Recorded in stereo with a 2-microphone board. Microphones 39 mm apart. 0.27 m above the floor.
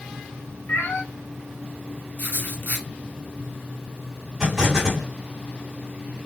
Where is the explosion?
10° right (ahead or behind), 2 m.